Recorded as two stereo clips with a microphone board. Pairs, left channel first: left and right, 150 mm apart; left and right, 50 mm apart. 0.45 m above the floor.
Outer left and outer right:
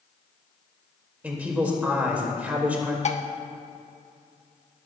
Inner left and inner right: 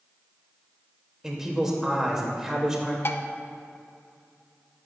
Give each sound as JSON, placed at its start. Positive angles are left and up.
{"t": 1.2, "sound": "a man speaking", "side_deg": -10, "distance_m": 2.0}
{"t": 3.0, "sound": "dishes clattering", "side_deg": 50, "distance_m": 0.6}